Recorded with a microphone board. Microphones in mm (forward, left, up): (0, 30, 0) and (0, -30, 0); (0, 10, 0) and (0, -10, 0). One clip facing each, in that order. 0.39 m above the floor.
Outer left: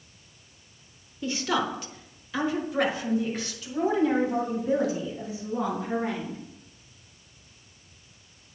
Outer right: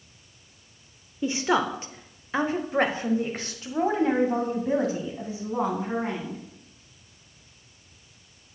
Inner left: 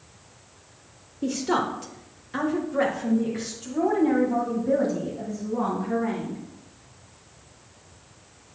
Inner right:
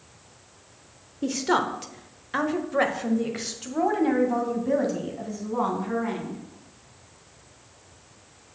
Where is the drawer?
No drawer in this recording.